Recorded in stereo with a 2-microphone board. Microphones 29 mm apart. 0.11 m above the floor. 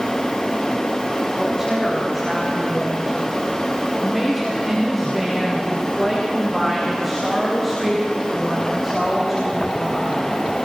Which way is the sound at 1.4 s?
10° right (ahead or behind).